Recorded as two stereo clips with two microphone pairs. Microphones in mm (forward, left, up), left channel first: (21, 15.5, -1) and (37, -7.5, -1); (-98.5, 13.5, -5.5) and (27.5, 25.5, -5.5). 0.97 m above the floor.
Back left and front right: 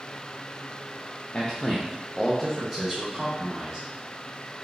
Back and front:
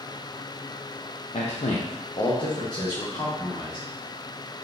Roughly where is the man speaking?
Behind.